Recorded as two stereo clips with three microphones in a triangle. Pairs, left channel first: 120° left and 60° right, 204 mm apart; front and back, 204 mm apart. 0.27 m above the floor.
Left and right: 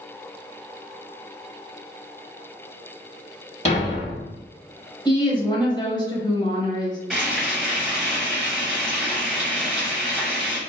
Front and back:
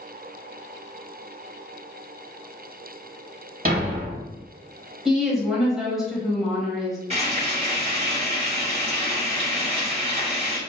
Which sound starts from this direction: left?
A woman speaking, at 5.0 s.